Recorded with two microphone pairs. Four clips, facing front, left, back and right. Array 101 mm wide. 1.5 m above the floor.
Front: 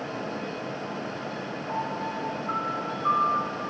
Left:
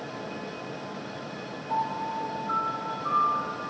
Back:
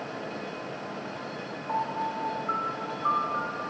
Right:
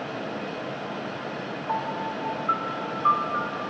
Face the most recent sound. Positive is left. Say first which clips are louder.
# left 1 dB, back 2 dB
turn(degrees=-100)